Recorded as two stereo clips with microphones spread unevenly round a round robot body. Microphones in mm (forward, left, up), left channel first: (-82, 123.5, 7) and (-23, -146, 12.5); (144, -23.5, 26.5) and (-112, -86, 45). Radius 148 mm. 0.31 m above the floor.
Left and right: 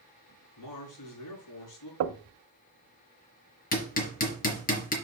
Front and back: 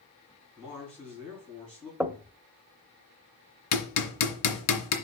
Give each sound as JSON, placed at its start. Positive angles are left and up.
{"t": 0.6, "sound": "a man speaking", "azimuth_deg": 100, "distance_m": 4.5}
{"t": 2.0, "sound": "knocking", "azimuth_deg": -80, "distance_m": 0.8}
{"t": 3.7, "sound": "hammering", "azimuth_deg": 40, "distance_m": 2.0}